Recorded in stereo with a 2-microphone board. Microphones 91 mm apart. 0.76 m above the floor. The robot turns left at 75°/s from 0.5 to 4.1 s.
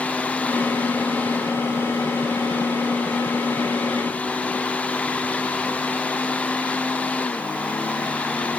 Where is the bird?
I don't hear a bird.